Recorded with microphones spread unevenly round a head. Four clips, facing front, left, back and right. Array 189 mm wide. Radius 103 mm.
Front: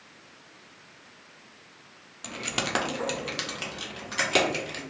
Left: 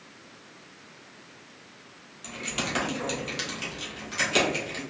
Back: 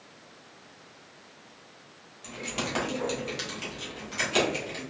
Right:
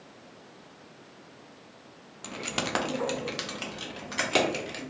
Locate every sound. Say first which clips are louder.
2.2 s keys jangling: even, front 2 dB; 30° right, 0.5 m; by 4.8 s 25° right, 2 m